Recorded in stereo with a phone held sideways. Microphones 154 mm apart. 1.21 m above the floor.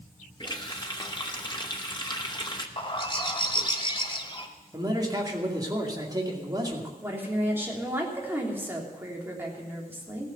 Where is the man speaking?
25° right (ahead or behind), 2.5 m.